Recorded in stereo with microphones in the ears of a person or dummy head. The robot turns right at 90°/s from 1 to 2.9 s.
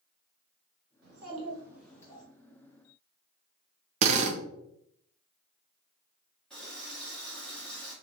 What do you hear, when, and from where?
1.0 s a child speaking: 75° right, 1.4 m; by 2.2 s 35° left, 1.4 m
4.0 s a drill: 40° right (ahead or behind), 0.6 m
6.5 s a running tap: 5° left (ahead or behind), 1.3 m